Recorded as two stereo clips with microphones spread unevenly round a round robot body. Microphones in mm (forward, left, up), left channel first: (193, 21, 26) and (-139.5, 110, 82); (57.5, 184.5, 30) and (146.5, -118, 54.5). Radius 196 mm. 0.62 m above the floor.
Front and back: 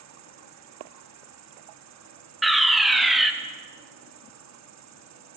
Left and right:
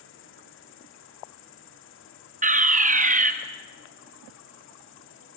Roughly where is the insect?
Behind left.